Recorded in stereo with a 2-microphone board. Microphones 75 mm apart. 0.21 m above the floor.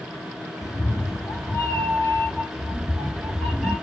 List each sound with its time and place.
0.6 s a cat meowing: 45° left (ahead or behind), 1.0 m; by 3.7 s 5° left (ahead or behind), 1.6 m